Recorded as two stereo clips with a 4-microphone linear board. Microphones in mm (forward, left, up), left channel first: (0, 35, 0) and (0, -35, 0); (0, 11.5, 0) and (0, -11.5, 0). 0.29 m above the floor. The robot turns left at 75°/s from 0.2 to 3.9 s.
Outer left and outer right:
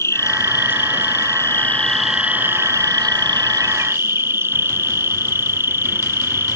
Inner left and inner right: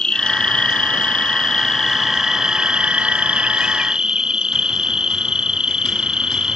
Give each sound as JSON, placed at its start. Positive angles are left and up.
{"t": 0.0, "sound": "an insect", "azimuth_deg": 135}